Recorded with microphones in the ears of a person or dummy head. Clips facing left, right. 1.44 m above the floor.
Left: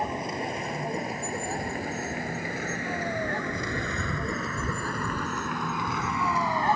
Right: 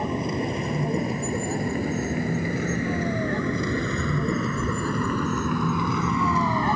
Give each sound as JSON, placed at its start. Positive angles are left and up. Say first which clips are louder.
{"t": 0.0, "sound": "a vehicle", "louder": "right 5 dB", "side_deg": -75}